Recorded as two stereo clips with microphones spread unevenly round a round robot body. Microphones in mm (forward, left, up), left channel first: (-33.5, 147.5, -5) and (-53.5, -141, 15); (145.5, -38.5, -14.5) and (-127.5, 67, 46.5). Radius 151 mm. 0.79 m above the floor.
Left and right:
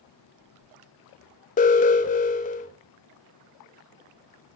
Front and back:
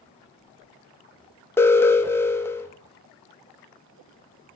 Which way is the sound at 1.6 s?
45° left.